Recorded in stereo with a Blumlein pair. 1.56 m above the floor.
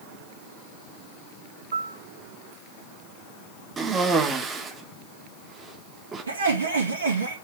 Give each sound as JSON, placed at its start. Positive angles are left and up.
{"t": 1.7, "sound": "a piano", "azimuth_deg": -65, "distance_m": 0.6}
{"t": 3.8, "sound": "a cough", "azimuth_deg": -20, "distance_m": 1.8}
{"t": 6.3, "sound": "laughter", "azimuth_deg": -65, "distance_m": 2.0}